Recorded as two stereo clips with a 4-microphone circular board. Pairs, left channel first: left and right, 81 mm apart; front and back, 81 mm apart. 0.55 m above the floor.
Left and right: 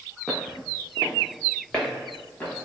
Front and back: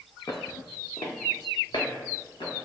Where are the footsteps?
15° right, 0.7 m; by 2.5 s 25° left, 3 m.